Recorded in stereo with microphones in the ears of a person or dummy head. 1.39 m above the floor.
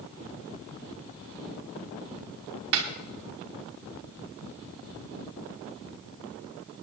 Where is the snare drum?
60° right (ahead or behind), 1.4 m.